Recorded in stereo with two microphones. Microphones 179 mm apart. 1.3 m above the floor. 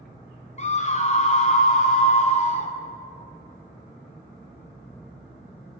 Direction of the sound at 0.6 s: 40° left (ahead or behind).